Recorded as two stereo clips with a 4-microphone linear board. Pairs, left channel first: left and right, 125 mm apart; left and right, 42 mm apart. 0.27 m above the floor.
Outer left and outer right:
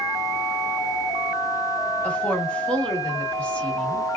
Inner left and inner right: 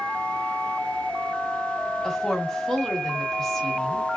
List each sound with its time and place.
2.0 s a woman speaking: 10° left (ahead or behind), 1.2 m